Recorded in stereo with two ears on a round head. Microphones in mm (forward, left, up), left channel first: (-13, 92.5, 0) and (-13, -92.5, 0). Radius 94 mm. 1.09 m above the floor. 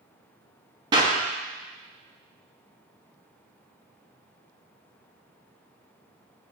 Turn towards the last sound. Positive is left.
turn(degrees=-20)  # may be behind; listen again after turning